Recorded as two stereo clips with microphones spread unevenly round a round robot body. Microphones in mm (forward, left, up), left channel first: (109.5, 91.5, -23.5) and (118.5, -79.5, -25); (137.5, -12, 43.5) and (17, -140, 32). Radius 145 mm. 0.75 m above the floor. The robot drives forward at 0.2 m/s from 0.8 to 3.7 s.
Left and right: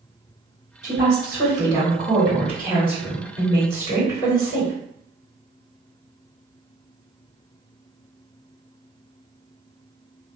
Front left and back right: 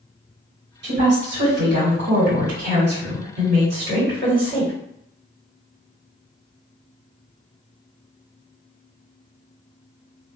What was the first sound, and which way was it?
A woman speaking, 150° right.